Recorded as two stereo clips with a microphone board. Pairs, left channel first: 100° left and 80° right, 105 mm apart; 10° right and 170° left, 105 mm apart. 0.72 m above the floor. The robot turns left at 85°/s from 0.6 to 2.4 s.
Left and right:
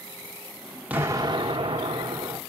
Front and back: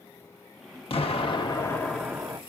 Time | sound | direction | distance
0.9 | an explosion | 5° right | 1.4 m